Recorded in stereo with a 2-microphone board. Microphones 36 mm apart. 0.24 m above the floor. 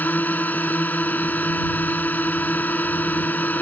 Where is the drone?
55° left (ahead or behind).